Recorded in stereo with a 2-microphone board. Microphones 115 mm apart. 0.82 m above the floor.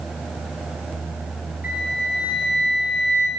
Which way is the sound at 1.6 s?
15° right (ahead or behind).